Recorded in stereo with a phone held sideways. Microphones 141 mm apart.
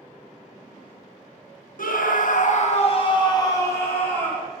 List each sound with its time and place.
1.8 s a scream: 80° left, 1.4 m; by 4.5 s 10° left (ahead or behind), 2.5 m